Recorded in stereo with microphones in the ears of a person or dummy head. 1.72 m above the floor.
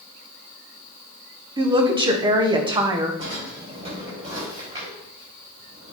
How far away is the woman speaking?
About 1.3 m.